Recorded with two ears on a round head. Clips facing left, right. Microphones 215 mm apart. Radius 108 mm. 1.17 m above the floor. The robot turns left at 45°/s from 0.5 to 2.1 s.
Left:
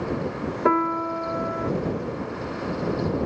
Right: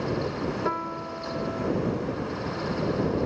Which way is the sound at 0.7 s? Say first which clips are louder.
Left 9 dB; 110° left.